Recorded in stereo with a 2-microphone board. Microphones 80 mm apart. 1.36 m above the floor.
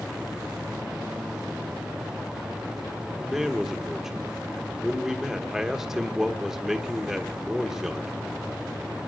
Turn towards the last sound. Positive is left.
turn(degrees=-5)  # may be behind; listen again after turning